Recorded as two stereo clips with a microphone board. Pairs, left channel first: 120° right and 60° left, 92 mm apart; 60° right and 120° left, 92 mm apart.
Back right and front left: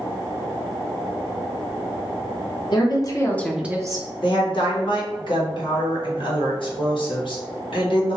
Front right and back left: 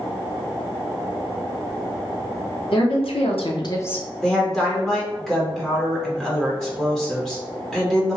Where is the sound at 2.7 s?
80° right, 1.0 m; by 4.1 s 20° left, 0.7 m.